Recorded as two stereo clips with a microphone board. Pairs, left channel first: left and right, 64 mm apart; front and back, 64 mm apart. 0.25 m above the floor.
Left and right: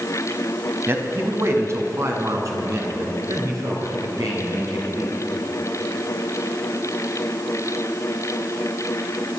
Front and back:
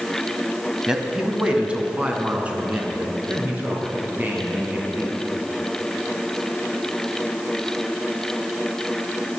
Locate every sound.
0.9 s a man speaking: 105° right, 1.6 m; by 5.2 s 120° right, 5.5 m